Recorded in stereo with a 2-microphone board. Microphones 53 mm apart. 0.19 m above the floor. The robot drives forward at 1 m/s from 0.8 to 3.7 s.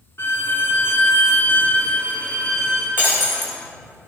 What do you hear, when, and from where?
0.2 s a violin: 50° left (ahead or behind), 0.8 m; by 2.9 s 15° left (ahead or behind), 2 m
3.0 s breaking glass: 40° left (ahead or behind), 3 m; by 3.5 s 30° left (ahead or behind), 3.5 m